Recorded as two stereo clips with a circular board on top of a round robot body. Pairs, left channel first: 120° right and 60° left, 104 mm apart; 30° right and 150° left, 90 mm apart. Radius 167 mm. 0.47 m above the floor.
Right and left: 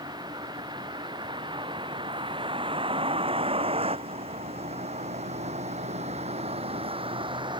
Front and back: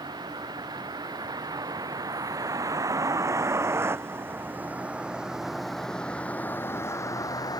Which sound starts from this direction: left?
A vehicle, at 0.0 s.